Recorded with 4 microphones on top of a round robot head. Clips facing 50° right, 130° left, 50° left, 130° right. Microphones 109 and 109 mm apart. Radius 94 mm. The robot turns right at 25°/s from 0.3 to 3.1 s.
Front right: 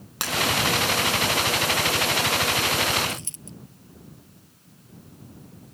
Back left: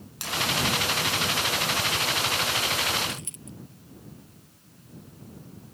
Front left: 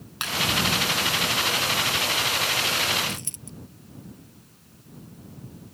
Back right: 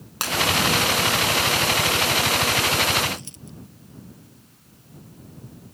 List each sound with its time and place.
0.2 s breaking glass: 80° right; by 0.3 s 75° right
3.1 s a dropped coin: 10° left